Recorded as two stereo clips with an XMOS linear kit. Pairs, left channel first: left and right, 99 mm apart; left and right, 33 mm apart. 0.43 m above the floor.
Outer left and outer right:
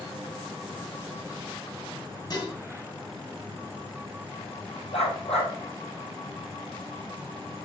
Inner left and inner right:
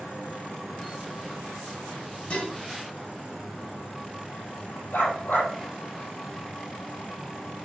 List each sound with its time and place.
2.3 s dishes clattering: 45° left (ahead or behind), 2.5 m
4.9 s a dog barking: 80° left, 4 m